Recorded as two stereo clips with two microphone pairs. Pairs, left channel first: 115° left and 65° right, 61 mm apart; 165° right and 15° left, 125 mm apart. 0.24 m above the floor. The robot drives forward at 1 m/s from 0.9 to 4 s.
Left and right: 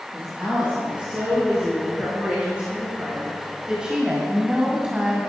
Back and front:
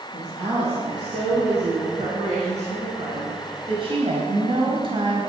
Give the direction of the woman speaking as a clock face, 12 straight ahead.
12 o'clock.